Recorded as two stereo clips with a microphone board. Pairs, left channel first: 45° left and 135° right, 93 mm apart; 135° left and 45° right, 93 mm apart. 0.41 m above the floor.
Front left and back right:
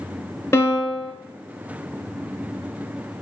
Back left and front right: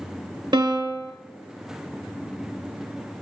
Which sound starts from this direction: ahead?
A piano, at 0.5 s.